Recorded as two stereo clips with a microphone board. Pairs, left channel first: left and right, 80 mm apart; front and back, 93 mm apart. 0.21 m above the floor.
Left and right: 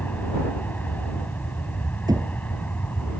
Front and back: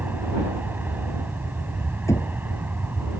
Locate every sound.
0.0 s an aircraft: 135° left
2.1 s knocking: 55° right